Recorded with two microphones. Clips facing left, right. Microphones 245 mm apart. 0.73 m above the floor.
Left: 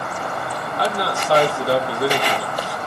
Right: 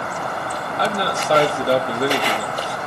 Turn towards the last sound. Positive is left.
turn(degrees=-20)  # may be behind; listen again after turning